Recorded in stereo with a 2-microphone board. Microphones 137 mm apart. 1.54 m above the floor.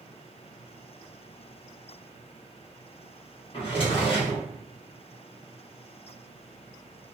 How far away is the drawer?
About 1.2 m.